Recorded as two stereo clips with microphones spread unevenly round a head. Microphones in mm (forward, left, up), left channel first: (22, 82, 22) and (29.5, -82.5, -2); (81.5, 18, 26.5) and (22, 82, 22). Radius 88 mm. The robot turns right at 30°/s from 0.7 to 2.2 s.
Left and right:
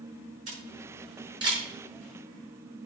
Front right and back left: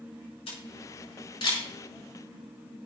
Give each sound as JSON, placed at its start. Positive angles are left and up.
{"t": 0.5, "sound": "a camera shutter", "azimuth_deg": -45, "distance_m": 6.0}